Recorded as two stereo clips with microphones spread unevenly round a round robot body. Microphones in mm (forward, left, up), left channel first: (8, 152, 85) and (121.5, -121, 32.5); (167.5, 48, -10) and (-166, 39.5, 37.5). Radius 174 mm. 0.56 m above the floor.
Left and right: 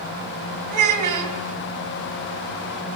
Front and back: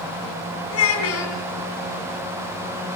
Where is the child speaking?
50° right, 3.5 m.